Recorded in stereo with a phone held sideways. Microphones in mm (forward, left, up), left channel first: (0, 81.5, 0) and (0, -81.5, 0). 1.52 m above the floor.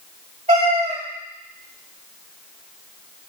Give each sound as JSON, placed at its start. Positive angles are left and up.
{"t": 0.5, "sound": "a cat meowing", "side_deg": -40, "distance_m": 1.8}